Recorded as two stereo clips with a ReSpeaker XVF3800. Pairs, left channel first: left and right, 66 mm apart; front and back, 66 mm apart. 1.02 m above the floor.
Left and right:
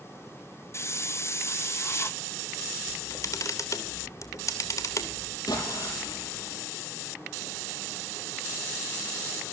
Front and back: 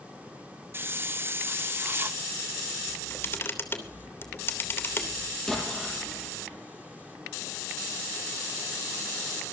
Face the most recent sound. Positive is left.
turn(degrees=85)